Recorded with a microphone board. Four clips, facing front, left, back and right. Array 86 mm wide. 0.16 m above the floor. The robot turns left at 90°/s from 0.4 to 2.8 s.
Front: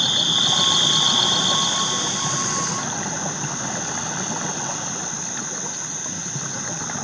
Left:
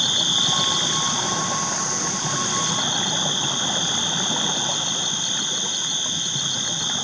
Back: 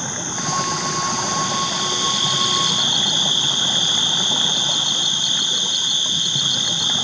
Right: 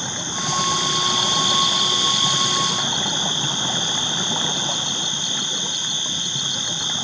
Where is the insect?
40° left; by 7.0 s 175° right.